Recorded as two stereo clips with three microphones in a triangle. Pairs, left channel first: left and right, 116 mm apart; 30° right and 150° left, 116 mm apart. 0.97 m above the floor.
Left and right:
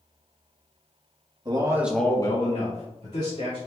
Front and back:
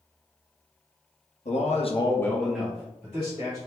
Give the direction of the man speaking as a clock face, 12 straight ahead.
1 o'clock.